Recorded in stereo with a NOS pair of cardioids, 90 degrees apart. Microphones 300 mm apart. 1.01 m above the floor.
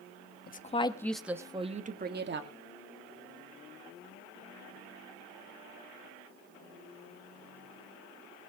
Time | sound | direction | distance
0.5 | a woman speaking | 30° left | 1.5 m